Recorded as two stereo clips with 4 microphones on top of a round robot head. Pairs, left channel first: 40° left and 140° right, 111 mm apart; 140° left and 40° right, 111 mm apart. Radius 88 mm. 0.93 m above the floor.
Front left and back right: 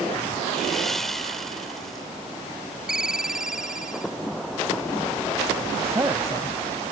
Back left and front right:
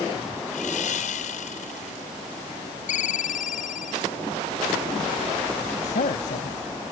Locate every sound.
0.5 s sawing: 130° left
2.9 s a ringtone: 135° left
5.8 s a man speaking: 155° left